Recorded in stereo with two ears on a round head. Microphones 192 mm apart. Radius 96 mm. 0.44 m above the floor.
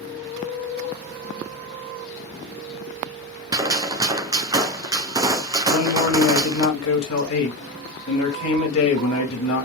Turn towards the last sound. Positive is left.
turn(degrees=75)  # may be behind; listen again after turning